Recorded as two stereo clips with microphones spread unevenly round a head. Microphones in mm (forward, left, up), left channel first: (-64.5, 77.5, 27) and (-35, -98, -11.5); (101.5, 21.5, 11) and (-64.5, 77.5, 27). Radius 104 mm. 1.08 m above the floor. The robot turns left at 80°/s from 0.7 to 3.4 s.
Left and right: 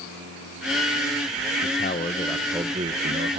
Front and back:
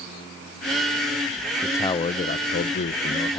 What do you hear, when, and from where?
1.6 s a man speaking: 60° left, 0.6 m; by 3.4 s 80° right, 0.6 m